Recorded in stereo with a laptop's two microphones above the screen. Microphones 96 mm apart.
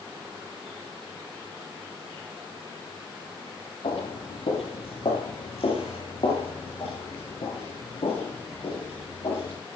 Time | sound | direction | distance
3.8 | footsteps | 80° left | 7 m